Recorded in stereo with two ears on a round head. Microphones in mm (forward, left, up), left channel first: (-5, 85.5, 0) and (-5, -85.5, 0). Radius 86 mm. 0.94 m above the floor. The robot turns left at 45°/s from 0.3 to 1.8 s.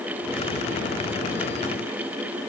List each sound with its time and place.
Only background noise.